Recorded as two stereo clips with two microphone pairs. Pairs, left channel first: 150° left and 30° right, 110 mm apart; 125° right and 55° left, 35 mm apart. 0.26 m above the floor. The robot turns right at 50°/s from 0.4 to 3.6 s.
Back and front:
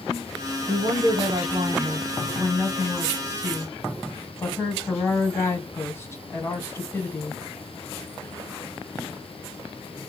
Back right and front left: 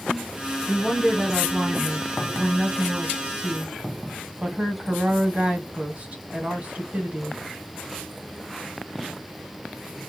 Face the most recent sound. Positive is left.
turn(degrees=90)